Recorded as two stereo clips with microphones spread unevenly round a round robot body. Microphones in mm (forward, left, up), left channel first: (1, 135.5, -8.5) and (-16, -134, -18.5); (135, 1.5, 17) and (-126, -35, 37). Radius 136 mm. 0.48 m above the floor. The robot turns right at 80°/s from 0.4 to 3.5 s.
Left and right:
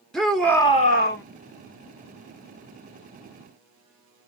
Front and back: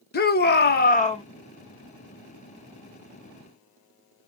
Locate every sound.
0.1 s a shout: 5° right, 0.9 m; by 1.2 s 65° left, 0.9 m